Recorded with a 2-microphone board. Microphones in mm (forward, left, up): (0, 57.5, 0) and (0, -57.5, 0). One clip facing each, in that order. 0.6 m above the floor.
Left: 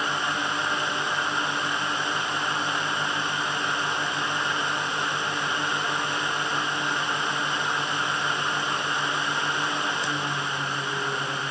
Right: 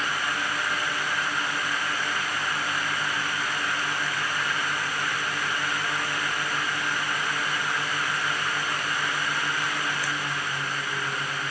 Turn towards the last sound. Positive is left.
No sound to turn to.